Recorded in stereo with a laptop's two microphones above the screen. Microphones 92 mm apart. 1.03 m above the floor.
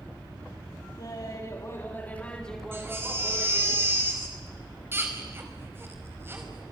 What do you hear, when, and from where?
1.0 s laughter: 50° left (ahead or behind), 2.5 m; by 3.7 s 15° right (ahead or behind), 3.5 m
2.7 s a baby crying: 25° right (ahead or behind), 5 m